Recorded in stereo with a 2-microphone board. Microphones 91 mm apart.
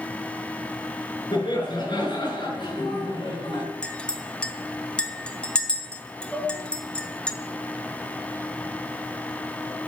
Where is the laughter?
55° left (ahead or behind), 4.5 m; by 3.6 s 60° left (ahead or behind), 3.5 m.